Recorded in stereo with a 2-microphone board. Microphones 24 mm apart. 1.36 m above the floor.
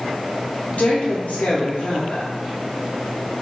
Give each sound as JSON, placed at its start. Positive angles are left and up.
{"t": 0.7, "sound": "a woman speaking", "side_deg": 80, "distance_m": 0.6}